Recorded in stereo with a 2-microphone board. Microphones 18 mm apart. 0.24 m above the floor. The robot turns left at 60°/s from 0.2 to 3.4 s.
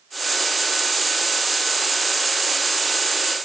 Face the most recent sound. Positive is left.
No sound to turn to.